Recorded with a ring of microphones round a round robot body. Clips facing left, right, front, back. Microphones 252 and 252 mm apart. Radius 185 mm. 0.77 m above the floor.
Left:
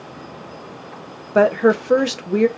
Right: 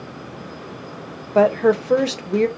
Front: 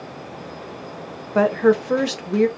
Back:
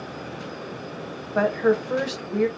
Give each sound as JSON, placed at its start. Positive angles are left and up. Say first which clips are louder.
{"t": 1.4, "sound": "a woman speaking", "louder": "left 1 dB, front 4 dB", "azimuth_deg": 20, "distance_m": 0.8}